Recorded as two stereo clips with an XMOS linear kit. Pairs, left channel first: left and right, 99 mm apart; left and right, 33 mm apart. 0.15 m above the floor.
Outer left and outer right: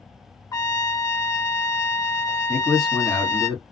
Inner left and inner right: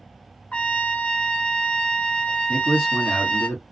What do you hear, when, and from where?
0.5 s a trumpet: 35° left (ahead or behind), 0.7 m
2.5 s a man speaking: 5° left (ahead or behind), 1.5 m